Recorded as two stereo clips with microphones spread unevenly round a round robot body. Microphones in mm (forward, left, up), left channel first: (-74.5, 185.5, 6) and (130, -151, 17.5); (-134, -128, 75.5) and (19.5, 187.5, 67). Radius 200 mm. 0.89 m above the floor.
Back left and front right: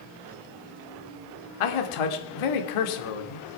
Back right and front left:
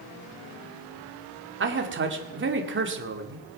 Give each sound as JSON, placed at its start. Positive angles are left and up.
{"t": 1.6, "sound": "a man speaking", "azimuth_deg": 120, "distance_m": 2.5}